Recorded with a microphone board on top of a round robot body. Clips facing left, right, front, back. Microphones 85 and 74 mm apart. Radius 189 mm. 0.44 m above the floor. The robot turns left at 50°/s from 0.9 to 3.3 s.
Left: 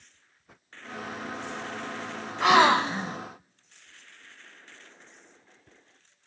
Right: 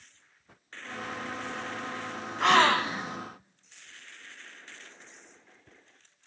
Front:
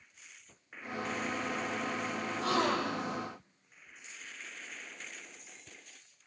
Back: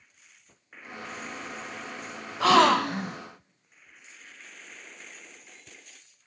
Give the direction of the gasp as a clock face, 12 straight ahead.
6 o'clock.